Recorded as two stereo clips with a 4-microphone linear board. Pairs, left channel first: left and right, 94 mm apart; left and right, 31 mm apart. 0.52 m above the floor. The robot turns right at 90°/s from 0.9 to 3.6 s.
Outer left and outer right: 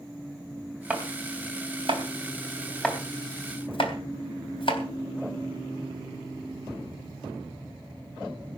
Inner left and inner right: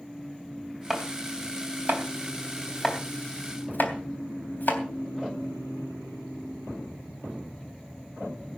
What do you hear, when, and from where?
0.9 s chopping: 15° right (ahead or behind), 3 m; by 4.8 s 70° left (ahead or behind), 3 m